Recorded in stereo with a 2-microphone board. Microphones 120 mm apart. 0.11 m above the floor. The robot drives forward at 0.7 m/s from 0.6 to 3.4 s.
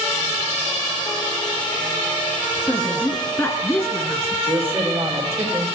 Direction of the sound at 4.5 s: 20° right (ahead or behind).